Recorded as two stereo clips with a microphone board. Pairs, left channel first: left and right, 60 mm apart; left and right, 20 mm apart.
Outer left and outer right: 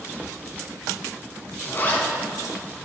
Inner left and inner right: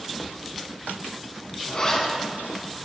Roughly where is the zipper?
Left.